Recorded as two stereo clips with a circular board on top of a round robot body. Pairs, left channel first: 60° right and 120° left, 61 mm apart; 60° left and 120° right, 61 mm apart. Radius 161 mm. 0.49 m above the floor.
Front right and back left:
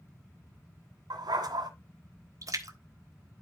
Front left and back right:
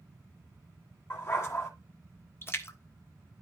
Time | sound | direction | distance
1.1 | a dog barking | 115° left | 2 m
2.4 | a splash | 105° left | 1.8 m